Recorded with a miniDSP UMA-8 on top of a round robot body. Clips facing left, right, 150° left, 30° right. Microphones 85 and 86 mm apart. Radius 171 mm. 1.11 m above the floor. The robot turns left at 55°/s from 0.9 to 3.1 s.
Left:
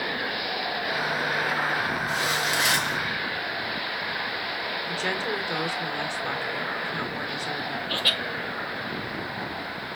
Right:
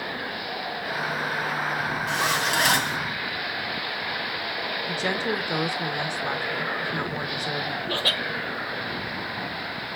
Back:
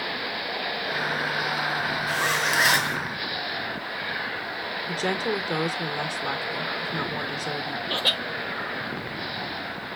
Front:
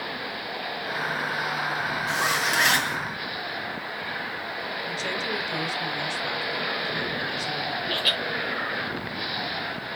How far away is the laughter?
About 1.5 m.